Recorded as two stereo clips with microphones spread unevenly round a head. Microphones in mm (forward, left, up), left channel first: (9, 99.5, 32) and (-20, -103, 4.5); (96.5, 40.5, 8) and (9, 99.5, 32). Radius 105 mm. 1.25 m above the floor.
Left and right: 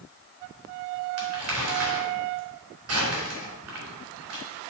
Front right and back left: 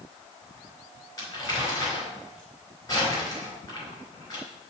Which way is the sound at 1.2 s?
110° right.